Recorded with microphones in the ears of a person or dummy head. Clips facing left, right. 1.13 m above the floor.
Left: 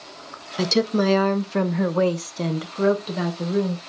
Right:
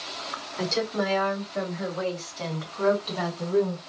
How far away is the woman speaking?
About 0.7 m.